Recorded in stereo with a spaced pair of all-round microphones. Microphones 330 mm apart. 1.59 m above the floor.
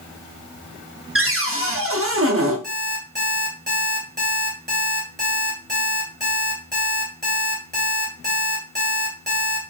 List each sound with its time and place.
1.1 s a cupboard door: 45° right (ahead or behind), 0.8 m
2.6 s an alarm clock: 35° right (ahead or behind), 2.5 m